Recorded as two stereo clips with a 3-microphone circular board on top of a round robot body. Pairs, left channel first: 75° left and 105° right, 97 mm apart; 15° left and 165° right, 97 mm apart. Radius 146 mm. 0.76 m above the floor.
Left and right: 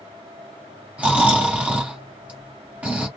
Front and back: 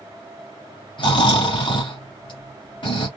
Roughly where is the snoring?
Ahead right.